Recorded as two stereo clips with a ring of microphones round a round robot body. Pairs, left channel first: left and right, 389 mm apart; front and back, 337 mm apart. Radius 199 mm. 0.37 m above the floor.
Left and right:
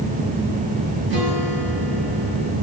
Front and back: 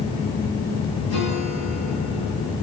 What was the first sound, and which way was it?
A guitar, 55° right.